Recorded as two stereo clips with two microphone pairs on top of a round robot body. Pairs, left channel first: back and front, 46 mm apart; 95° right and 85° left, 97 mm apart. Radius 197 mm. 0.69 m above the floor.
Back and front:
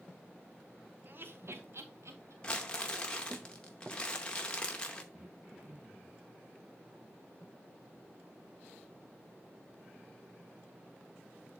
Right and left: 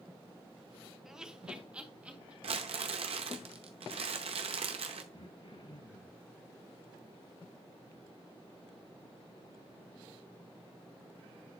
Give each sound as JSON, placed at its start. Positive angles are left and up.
{"t": 1.1, "sound": "laughter", "azimuth_deg": 5, "distance_m": 1.2}
{"t": 2.4, "sound": "crumpling", "azimuth_deg": 105, "distance_m": 0.7}
{"t": 5.1, "sound": "throat clearing", "azimuth_deg": -65, "distance_m": 4.5}